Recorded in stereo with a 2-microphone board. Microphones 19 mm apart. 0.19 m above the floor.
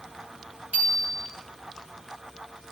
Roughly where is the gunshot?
No gunshot in this recording.